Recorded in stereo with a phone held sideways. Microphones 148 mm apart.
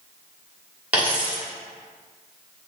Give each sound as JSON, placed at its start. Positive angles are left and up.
{"t": 0.9, "sound": "a dropped coin", "side_deg": -10, "distance_m": 1.3}